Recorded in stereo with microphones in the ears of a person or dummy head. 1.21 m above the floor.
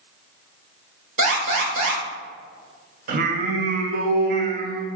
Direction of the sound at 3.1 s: 60° right (ahead or behind).